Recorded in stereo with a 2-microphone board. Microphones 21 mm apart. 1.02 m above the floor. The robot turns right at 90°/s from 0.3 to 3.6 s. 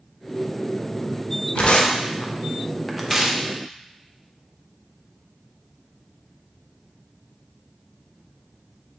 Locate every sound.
1.6 s tearing paper: 55° left (ahead or behind), 0.5 m; by 3.4 s 40° right (ahead or behind), 0.5 m